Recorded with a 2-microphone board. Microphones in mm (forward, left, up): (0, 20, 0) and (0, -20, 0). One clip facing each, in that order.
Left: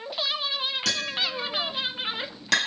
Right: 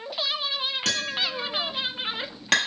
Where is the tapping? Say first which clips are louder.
Right 1 dB; 40° right (ahead or behind), 1.4 m.